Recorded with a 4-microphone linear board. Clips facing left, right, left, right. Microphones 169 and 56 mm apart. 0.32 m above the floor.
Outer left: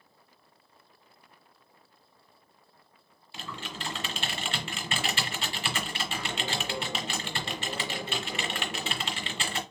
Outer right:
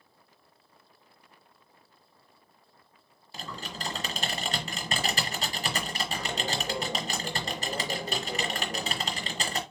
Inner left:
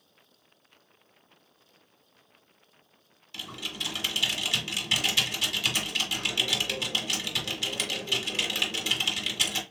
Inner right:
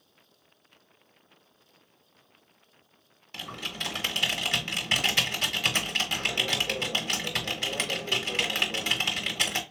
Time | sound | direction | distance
3.3 | typing on a keyboard | 40° right (ahead or behind) | 0.9 m